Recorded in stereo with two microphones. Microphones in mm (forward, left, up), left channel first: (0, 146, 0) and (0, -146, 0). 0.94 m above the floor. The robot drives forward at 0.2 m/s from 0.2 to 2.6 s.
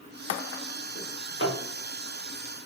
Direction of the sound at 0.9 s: 45° left (ahead or behind).